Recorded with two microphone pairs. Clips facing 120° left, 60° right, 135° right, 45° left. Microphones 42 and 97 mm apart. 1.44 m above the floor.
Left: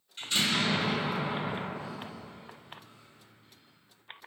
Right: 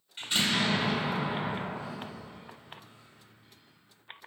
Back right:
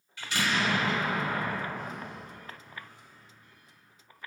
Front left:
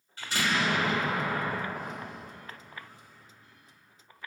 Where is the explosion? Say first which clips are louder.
Right 1 dB, even; 10° left, 1.3 m.